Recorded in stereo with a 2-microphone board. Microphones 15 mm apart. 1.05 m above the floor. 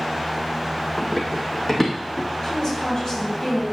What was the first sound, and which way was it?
Running footsteps, 10° left (ahead or behind).